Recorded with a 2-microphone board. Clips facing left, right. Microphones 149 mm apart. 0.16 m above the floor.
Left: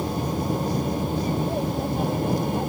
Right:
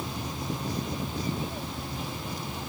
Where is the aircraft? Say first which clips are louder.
Left 9 dB; 50° left (ahead or behind); by 2.7 s 55° left (ahead or behind).